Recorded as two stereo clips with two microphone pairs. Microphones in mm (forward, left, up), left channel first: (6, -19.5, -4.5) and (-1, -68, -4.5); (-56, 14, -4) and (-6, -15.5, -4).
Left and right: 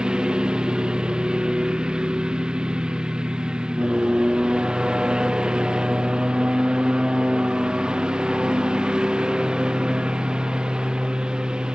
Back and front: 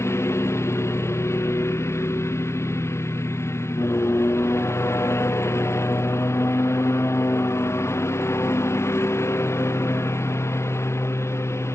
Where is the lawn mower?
170° right.